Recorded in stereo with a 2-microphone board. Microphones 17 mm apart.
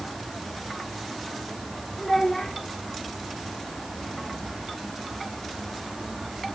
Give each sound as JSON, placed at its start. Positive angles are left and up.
{"t": 2.0, "sound": "a child speaking", "side_deg": 25, "distance_m": 6.0}